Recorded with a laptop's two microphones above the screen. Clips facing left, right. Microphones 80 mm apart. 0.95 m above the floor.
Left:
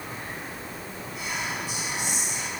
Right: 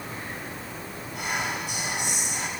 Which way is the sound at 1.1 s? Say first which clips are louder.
Right 3 dB; 65° right (ahead or behind).